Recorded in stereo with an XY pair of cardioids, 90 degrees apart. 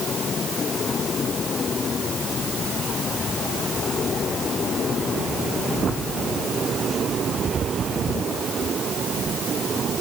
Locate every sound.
Only background noise.